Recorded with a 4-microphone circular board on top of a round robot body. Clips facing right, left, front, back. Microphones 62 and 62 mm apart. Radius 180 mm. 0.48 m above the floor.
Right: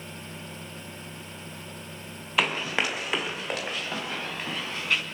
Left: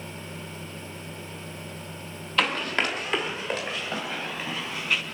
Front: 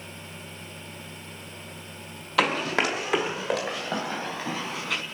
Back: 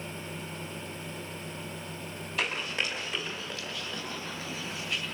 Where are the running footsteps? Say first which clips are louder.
Left 1 dB, front 9 dB; 10° right, 0.8 m; by 5.0 s 5° right, 4.5 m.